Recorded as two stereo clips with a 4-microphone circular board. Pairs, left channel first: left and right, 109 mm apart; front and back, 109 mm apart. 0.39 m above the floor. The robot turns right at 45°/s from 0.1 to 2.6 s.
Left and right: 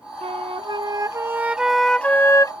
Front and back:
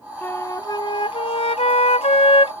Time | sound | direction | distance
0.2 | a flute | 70° right | ?